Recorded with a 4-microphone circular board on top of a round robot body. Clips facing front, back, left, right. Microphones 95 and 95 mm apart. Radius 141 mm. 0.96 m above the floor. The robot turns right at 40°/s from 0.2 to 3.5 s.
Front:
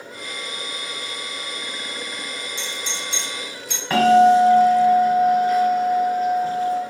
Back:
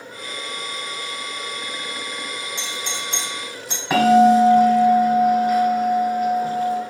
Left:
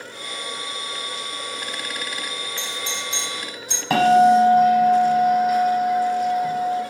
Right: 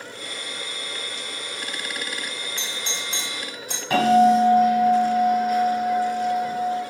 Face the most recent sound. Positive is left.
turn(degrees=100)